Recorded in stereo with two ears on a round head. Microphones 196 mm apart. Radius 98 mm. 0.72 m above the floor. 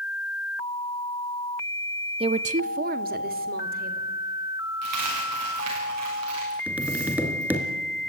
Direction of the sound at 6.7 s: 10° right (ahead or behind).